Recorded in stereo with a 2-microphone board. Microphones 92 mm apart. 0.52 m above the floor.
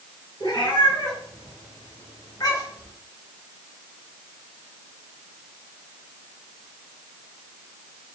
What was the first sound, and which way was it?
A cat meowing, 55° left (ahead or behind).